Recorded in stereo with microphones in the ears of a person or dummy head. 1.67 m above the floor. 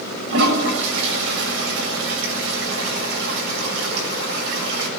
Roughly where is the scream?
No scream in this recording.